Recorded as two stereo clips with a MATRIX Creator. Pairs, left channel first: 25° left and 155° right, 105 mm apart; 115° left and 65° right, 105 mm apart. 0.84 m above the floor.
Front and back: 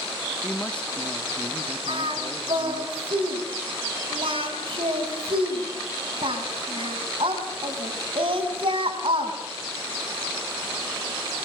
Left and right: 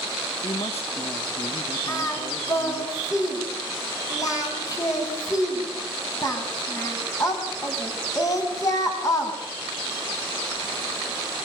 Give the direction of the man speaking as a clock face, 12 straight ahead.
9 o'clock.